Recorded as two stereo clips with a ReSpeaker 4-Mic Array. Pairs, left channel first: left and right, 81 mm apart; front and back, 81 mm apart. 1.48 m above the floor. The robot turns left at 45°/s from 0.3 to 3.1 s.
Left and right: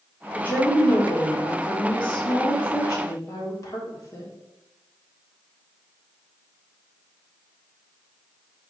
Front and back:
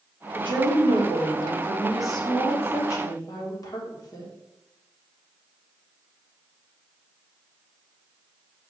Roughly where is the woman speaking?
Behind.